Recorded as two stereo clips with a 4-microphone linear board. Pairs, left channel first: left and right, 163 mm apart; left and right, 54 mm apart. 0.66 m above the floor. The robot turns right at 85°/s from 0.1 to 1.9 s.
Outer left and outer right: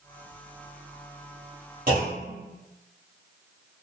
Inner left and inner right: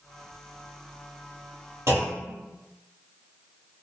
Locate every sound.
1.9 s a clunk: 55° right (ahead or behind), 1.2 m